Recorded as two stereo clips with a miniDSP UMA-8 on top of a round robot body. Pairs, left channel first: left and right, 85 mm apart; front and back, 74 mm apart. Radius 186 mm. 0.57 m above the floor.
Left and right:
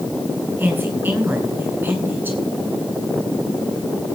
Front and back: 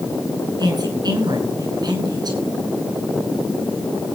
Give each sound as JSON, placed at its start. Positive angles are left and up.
{"t": 0.6, "sound": "a woman speaking", "azimuth_deg": -160, "distance_m": 5.5}